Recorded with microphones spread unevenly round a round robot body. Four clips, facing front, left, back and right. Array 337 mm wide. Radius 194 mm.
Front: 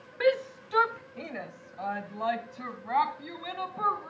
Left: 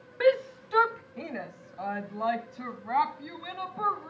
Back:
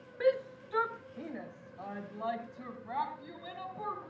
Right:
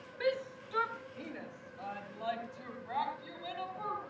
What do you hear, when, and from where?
0.2 s a shout: 75° left, 1.0 m; by 4.1 s 40° left, 5 m